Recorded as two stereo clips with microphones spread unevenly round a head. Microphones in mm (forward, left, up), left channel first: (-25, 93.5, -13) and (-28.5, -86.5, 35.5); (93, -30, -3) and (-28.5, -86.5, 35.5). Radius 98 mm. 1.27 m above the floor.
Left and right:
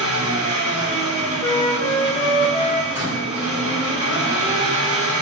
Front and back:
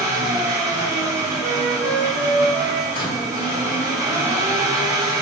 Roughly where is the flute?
Behind left.